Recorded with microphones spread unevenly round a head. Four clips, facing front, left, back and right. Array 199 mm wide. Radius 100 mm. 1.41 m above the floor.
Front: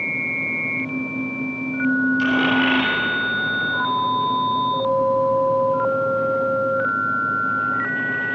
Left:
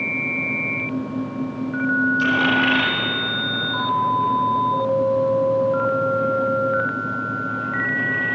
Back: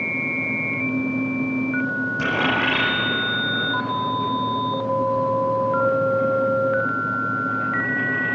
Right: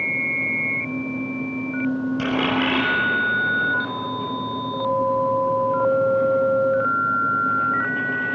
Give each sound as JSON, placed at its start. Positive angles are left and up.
{"t": 2.2, "sound": "a dropped coin", "azimuth_deg": -120, "distance_m": 7.0}